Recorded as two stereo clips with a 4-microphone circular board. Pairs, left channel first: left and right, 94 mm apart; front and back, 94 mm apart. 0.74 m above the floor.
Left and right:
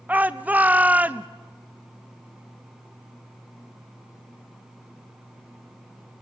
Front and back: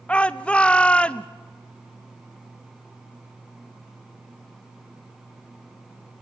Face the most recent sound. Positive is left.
turn(degrees=-50)